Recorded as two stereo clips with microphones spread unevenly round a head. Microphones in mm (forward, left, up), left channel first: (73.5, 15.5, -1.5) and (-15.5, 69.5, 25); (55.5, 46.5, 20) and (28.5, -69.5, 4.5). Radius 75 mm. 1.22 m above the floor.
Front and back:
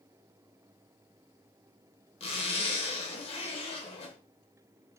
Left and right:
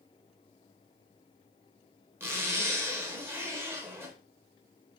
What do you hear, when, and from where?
2.2 s a zipper: 30° right, 0.7 m